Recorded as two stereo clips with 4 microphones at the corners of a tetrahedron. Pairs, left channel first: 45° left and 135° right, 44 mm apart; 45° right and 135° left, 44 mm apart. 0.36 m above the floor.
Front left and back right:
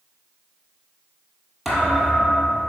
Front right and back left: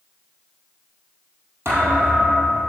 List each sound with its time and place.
1.6 s a thud: 135° left, 3.5 m